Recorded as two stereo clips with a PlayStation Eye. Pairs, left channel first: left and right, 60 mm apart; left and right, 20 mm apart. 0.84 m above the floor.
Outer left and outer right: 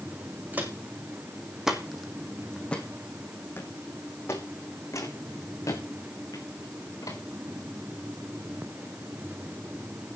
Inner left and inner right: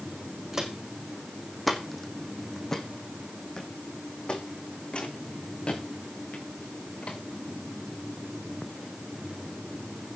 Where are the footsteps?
30° right (ahead or behind), 3.5 m; by 7.2 s 75° left (ahead or behind), 6.5 m.